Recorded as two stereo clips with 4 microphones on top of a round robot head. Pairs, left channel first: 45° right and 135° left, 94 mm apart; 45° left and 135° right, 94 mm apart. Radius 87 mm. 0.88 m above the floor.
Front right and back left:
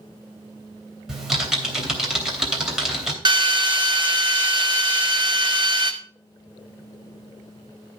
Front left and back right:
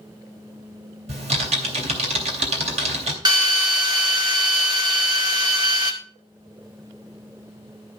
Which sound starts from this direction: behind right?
Typing on a keyboard, at 1.1 s.